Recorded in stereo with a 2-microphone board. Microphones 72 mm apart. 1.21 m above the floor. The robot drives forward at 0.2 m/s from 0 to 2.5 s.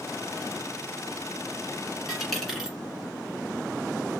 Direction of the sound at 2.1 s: Centre (ahead or behind).